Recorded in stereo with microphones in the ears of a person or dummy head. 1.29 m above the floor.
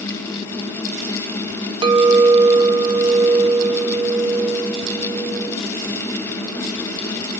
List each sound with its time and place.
1.8 s a clink: 25° right (ahead or behind), 0.7 m